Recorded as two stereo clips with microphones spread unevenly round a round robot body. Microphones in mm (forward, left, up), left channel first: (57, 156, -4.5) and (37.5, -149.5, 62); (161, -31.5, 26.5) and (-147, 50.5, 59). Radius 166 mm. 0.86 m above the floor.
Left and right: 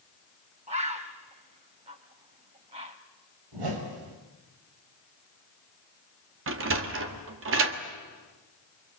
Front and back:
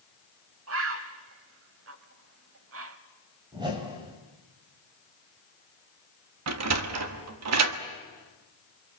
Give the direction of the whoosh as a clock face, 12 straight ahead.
4 o'clock.